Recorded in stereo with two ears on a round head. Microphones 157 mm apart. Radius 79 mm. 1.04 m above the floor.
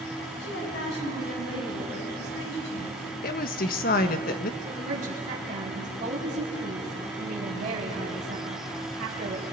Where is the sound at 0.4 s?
70° left (ahead or behind), 8.5 m; by 3.0 s 60° left (ahead or behind), 7.5 m.